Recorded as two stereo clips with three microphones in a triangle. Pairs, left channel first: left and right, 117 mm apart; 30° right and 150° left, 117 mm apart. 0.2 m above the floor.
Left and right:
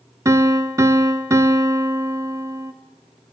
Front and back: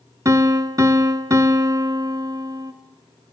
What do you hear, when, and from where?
0.2 s a piano: 150° right, 0.7 m